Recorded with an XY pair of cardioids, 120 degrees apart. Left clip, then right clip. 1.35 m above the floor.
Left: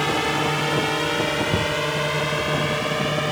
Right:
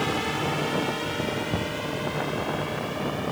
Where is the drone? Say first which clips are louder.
Left 5 dB; 30° left; by 3.3 s 60° left.